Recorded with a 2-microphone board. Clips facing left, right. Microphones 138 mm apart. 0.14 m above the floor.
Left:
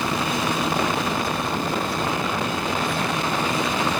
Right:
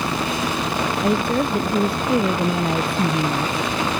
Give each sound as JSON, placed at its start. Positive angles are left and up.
{"t": 1.0, "sound": "a woman speaking", "side_deg": -60}